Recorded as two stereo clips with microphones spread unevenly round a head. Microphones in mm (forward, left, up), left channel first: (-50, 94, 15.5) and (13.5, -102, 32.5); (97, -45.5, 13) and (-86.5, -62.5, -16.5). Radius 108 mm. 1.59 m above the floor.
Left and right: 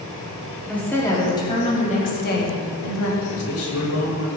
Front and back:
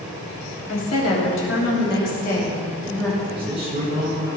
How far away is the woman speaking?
About 3.5 m.